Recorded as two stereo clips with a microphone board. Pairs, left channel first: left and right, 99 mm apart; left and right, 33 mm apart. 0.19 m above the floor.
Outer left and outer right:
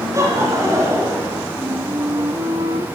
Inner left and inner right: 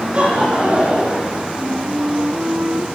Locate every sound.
0.1 s laughter: 30° right (ahead or behind), 9.5 m
1.6 s a flute: 45° right (ahead or behind), 1.4 m